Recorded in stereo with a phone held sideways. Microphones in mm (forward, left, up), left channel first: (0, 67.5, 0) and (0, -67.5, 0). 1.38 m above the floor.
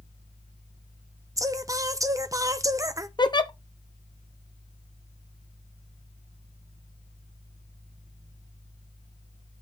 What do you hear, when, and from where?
0.0 s a fan: 45° right (ahead or behind), 1.1 m
1.4 s singing: 25° right (ahead or behind), 0.6 m
3.2 s a giggle: 35° left (ahead or behind), 0.6 m